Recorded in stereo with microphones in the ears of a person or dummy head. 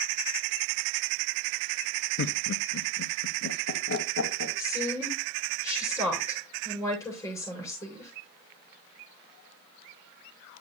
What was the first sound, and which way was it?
Laughter, 50° left (ahead or behind).